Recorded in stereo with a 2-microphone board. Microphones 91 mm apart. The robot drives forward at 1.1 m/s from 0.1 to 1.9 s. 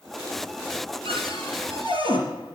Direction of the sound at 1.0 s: 75° right (ahead or behind).